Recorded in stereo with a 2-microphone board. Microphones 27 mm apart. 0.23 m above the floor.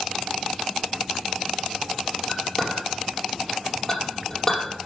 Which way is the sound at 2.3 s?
15° left (ahead or behind).